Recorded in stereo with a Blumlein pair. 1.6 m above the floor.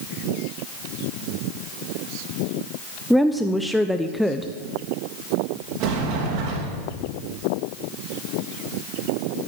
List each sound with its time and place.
3.1 s a woman speaking: straight ahead, 0.6 m
5.8 s a sliding door: 40° right, 2.5 m